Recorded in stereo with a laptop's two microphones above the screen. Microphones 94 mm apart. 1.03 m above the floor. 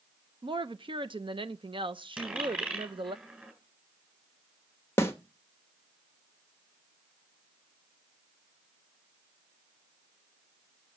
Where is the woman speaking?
55° right (ahead or behind), 0.6 m.